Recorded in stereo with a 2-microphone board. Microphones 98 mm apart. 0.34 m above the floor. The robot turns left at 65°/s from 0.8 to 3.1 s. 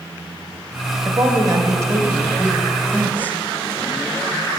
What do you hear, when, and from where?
1.1 s a woman speaking: 75° right, 1.3 m; by 3.4 s 150° left, 1.3 m